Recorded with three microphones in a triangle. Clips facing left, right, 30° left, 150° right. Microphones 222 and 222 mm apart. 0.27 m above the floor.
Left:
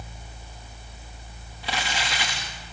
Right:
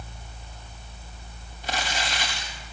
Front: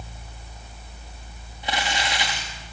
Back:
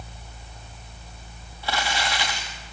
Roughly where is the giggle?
I don't hear a giggle.